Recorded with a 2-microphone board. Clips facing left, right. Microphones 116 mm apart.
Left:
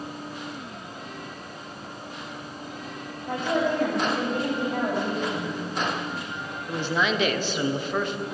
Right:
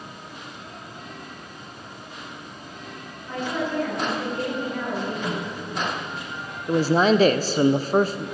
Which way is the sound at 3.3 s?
60° left (ahead or behind).